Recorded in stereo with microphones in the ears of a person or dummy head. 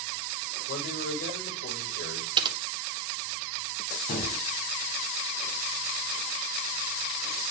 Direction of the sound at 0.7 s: 55° left (ahead or behind).